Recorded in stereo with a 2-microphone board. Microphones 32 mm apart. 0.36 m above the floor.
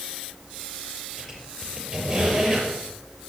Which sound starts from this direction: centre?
A squeak, at 1.2 s.